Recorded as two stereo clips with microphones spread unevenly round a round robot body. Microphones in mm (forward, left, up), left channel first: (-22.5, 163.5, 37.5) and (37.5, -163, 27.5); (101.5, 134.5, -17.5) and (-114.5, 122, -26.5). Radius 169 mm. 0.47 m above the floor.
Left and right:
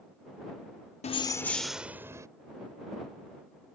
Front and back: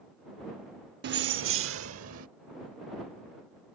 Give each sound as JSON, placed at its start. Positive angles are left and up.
{"t": 1.0, "sound": "keys jangling", "azimuth_deg": 170}